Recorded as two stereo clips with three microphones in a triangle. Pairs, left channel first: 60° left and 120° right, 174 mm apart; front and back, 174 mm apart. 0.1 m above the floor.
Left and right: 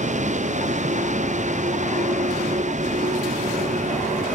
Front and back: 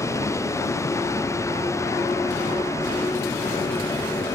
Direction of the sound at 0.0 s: 75° right.